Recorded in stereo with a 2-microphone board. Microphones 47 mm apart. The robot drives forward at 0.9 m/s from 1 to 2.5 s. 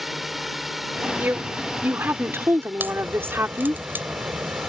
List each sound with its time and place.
0.0 s a drone: 5° right (ahead or behind)
1.2 s a woman speaking: 45° right (ahead or behind); by 3.8 s 55° right (ahead or behind)
2.8 s a crack: 45° right (ahead or behind)